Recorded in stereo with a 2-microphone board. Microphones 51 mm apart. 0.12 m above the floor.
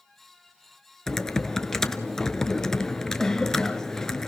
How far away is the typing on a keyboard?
About 1.0 m.